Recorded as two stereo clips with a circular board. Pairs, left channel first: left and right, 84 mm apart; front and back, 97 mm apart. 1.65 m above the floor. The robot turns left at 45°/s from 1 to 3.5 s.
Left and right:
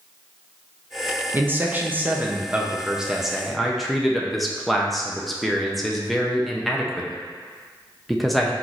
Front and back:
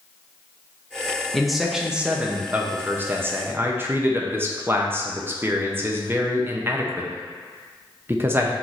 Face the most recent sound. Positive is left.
turn(degrees=175)